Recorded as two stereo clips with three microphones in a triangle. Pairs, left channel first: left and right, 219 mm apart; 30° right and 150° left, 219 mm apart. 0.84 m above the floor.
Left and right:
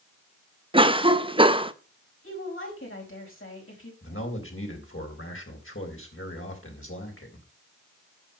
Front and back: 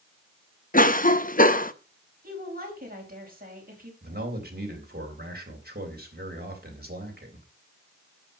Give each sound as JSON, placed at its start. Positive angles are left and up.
{"t": 0.7, "sound": "a cough", "azimuth_deg": -40, "distance_m": 0.9}
{"t": 2.2, "sound": "a woman speaking", "azimuth_deg": 105, "distance_m": 5.0}
{"t": 4.0, "sound": "a man speaking", "azimuth_deg": 105, "distance_m": 3.5}